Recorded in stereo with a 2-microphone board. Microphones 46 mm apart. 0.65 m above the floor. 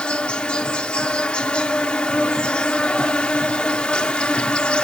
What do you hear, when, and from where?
0.0 s an insect: 25° left (ahead or behind), 0.8 m